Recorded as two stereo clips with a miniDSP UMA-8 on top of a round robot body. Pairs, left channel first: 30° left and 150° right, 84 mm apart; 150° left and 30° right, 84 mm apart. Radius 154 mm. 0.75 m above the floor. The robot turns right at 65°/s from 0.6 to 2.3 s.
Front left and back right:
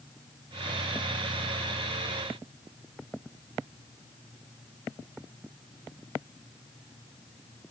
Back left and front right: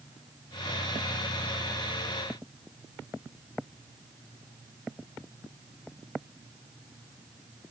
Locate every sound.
Only background noise.